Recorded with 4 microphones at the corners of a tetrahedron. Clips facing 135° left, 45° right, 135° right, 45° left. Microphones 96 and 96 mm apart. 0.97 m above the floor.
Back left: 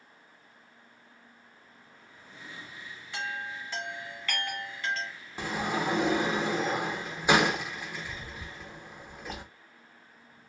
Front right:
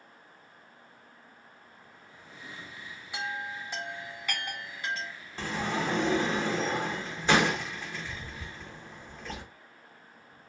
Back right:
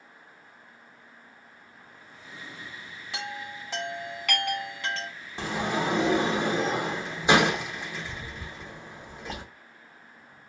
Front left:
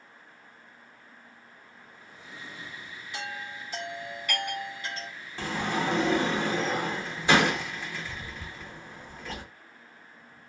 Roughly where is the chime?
Behind right.